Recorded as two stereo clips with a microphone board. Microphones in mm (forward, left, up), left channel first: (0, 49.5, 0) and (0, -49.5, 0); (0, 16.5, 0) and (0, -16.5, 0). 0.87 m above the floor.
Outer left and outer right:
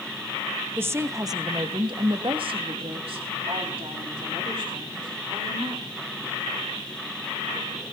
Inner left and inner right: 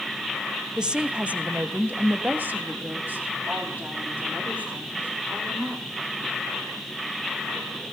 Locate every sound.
0.8 s a woman speaking: 25° right (ahead or behind), 1.1 m; by 5.9 s 55° right (ahead or behind), 3.5 m